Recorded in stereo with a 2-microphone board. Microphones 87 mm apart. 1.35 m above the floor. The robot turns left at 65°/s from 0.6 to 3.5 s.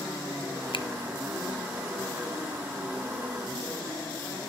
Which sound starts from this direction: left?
A finger snap, at 0.7 s.